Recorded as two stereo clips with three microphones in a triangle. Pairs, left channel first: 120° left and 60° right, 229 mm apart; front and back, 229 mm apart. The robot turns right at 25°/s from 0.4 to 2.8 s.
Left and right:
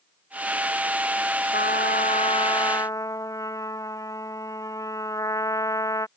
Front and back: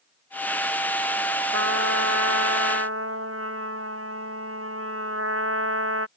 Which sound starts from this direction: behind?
A trumpet, at 1.5 s.